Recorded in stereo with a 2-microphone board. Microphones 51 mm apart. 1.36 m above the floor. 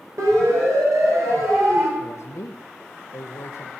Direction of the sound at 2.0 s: 75° left (ahead or behind).